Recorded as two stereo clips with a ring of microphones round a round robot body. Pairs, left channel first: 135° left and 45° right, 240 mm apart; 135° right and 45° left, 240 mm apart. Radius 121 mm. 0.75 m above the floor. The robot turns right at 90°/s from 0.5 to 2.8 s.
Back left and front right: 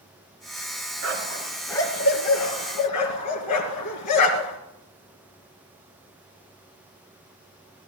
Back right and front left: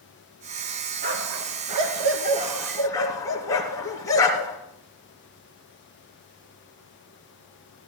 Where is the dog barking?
10° right, 3 m; by 4.6 s 150° left, 3 m.